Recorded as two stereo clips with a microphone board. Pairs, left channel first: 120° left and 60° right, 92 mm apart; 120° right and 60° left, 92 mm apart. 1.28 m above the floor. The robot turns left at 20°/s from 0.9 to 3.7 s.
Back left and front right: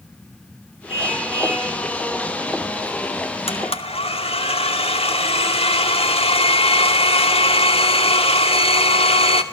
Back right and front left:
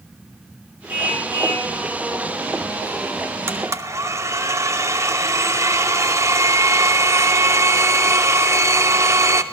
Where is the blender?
125° left, 2.5 m; by 9.4 s 120° left, 2.5 m.